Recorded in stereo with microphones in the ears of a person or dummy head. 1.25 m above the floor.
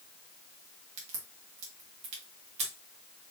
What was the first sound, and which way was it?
A crack, 35° right (ahead or behind).